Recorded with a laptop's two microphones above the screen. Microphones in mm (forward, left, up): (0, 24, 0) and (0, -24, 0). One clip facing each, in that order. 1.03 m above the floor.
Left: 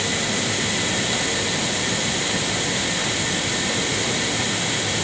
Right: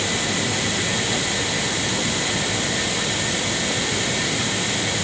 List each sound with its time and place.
Only background noise.